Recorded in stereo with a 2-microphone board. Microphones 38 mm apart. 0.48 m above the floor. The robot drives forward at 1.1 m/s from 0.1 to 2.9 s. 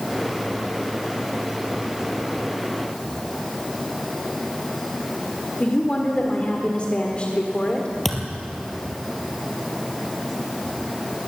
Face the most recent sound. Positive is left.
turn(degrees=5)  # may be behind; listen again after turning